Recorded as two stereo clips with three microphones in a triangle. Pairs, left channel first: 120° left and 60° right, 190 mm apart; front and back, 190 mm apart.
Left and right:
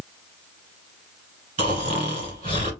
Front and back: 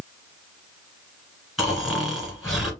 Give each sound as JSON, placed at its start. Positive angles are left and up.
{"t": 1.6, "sound": "snoring", "azimuth_deg": -90, "distance_m": 2.0}